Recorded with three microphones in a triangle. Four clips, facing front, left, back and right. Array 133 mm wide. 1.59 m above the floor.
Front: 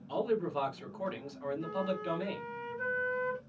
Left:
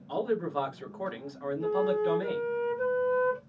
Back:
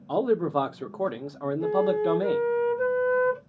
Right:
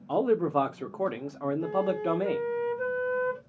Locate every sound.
0.1 s a man speaking: 140° right, 0.9 m
1.6 s a flute: straight behind, 1.5 m